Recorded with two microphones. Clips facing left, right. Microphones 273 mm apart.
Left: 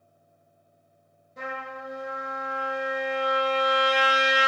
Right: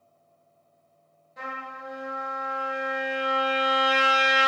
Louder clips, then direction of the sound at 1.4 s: Left 4 dB; 35° left (ahead or behind).